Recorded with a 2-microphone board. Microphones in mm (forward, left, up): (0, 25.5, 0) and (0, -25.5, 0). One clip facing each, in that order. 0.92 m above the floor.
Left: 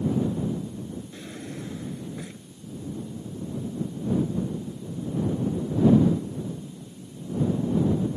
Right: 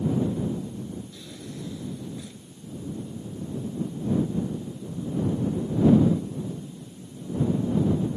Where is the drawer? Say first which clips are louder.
Left 2 dB; 35° left (ahead or behind).